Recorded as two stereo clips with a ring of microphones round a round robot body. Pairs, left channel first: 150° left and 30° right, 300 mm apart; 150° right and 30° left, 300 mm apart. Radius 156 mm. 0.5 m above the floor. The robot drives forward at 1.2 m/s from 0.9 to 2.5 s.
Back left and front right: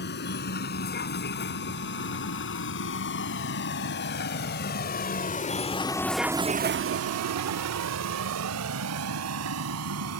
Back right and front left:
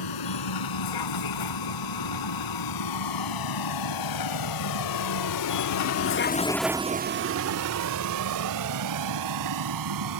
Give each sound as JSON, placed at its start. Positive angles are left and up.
{"t": 0.0, "sound": "a vehicle", "azimuth_deg": -155}